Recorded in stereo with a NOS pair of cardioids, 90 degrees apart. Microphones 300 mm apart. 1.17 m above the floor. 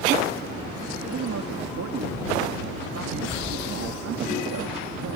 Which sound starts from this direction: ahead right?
A man speaking, at 1.1 s.